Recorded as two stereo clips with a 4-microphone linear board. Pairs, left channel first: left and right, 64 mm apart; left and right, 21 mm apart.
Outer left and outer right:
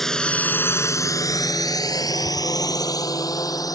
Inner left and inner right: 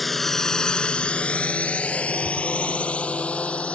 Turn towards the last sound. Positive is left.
turn(degrees=60)  # may be behind; listen again after turning